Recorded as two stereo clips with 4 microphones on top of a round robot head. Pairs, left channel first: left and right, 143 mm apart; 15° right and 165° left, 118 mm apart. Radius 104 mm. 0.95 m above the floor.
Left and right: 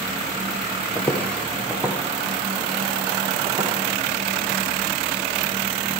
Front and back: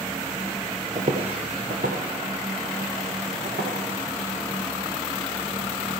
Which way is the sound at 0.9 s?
140° left.